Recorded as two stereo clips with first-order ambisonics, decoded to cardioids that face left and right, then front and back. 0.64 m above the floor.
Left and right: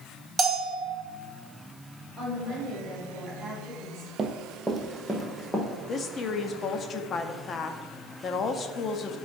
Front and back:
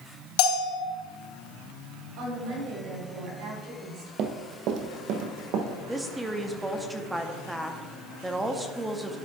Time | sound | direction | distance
0.4 | a bell | 10° right | 1.5 m
2.2 | a woman speaking | 170° right | 4 m
4.2 | running footsteps | 160° right | 0.8 m
5.9 | a woman speaking | 105° left | 0.6 m